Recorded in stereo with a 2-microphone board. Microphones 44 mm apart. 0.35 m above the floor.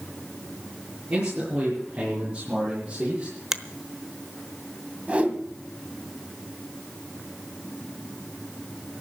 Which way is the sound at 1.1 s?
35° right (ahead or behind).